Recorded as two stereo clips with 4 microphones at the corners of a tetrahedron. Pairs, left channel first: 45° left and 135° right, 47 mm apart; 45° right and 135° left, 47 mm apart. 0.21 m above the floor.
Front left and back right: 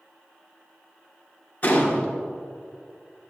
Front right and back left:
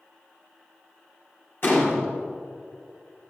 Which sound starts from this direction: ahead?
A gunshot, at 1.6 s.